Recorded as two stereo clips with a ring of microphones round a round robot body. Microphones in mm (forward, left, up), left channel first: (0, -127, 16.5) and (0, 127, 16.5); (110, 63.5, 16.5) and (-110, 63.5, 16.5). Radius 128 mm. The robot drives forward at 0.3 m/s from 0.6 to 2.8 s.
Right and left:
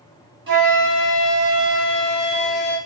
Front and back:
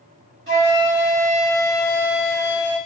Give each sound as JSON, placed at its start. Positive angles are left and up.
{"t": 0.5, "sound": "a flute", "azimuth_deg": 155, "distance_m": 2.0}